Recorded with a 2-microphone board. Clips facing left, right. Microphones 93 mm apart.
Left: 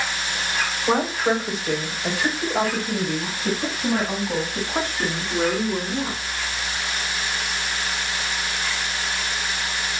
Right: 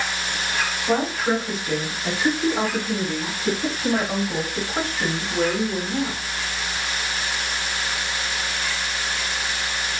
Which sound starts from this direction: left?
A woman speaking, at 0.9 s.